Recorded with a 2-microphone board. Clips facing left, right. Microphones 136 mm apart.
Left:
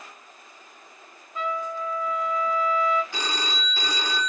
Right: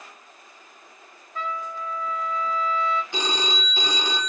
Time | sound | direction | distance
1.4 | a trumpet | 15° left (ahead or behind) | 2 m
3.1 | a phone ringing | 20° right (ahead or behind) | 0.6 m